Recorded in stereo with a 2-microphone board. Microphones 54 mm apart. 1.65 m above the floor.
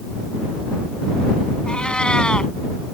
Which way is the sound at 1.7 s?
15° left (ahead or behind).